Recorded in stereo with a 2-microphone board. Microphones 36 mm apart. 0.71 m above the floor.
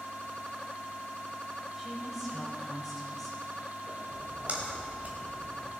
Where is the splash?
40° right (ahead or behind), 2 m.